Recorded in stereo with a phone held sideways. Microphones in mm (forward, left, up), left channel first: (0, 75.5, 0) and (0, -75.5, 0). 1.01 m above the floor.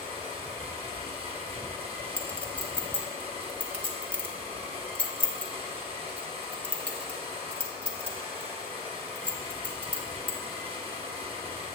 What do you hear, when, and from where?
0.0 s a machine running: 40° right (ahead or behind), 1.1 m
2.2 s a clink: 10° left (ahead or behind), 0.8 m